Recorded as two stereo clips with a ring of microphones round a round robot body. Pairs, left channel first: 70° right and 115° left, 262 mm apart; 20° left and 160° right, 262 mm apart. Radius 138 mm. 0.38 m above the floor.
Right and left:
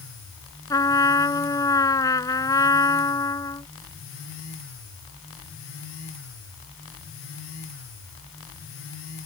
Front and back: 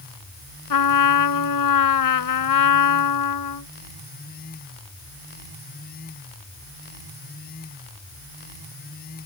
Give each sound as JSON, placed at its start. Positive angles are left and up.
{"t": 0.7, "sound": "a trumpet", "azimuth_deg": 10}